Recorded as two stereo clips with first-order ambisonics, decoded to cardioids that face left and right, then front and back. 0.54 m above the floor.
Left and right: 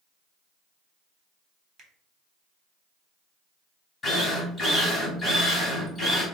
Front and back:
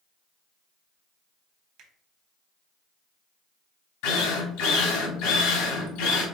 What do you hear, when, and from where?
1.8 s a finger snap: 140° right, 1.0 m
4.0 s a drill: 10° left, 1.4 m